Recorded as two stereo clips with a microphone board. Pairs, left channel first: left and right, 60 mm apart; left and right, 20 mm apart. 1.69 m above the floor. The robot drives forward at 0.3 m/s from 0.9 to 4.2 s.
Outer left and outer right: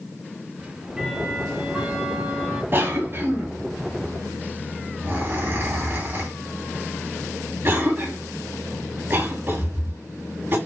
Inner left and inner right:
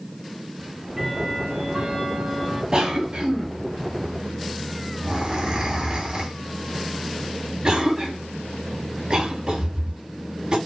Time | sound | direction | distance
0.6 | ticking | 15° right (ahead or behind) | 1.7 m
2.7 | a cough | 35° right (ahead or behind) | 3 m